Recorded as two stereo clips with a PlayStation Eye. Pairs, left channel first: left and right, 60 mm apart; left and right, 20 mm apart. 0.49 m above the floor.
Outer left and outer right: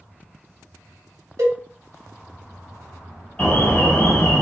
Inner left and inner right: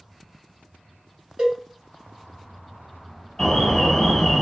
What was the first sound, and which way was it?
A cowbell, 55° right (ahead or behind).